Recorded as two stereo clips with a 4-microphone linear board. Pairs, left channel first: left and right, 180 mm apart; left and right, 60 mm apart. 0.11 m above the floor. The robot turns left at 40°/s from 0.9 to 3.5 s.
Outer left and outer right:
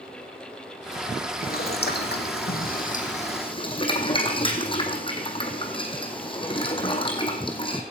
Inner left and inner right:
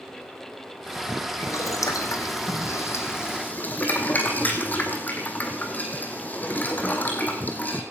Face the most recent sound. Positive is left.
turn(degrees=30)  # may be behind; listen again after turning